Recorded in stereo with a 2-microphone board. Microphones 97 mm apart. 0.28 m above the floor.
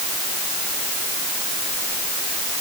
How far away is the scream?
No scream in this recording.